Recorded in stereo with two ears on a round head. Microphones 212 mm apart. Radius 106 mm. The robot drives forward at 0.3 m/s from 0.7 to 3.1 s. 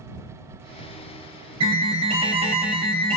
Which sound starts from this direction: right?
An alarm, at 1.6 s.